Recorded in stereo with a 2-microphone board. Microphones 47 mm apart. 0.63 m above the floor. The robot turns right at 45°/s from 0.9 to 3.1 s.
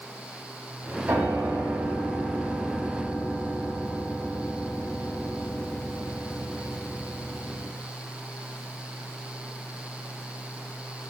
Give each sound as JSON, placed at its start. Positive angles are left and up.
{"t": 1.1, "sound": "a piano", "azimuth_deg": -120, "distance_m": 1.3}